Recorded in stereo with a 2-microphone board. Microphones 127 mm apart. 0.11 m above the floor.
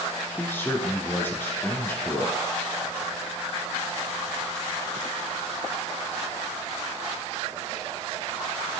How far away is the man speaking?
About 1.4 m.